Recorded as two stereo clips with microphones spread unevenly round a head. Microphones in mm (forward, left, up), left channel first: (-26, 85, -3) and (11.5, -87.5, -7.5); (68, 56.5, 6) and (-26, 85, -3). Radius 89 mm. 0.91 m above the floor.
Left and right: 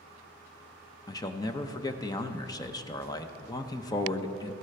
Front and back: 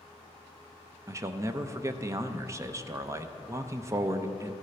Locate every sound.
1.1 s a man speaking: 160° left, 0.7 m